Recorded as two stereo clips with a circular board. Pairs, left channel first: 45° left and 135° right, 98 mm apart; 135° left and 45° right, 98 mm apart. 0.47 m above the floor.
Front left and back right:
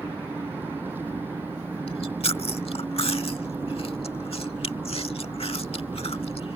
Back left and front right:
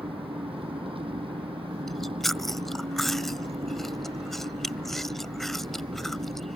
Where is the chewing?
50° left.